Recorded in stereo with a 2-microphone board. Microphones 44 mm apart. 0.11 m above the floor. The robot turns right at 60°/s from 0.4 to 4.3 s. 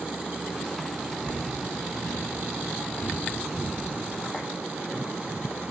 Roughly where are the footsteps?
Left.